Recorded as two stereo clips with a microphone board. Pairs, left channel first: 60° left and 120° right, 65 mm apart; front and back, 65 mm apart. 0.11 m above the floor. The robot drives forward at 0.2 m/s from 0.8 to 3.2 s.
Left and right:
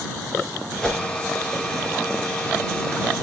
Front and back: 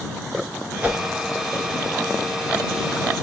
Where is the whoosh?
125° left, 1.1 m; by 1.0 s 130° left, 1.1 m.